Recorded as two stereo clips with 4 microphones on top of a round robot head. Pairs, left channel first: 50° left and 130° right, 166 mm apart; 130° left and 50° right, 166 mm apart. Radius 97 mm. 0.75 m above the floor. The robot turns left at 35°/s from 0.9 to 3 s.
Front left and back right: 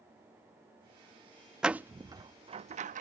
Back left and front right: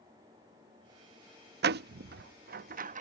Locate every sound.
1.6 s a door slam: 45° right; by 3.0 s 90° right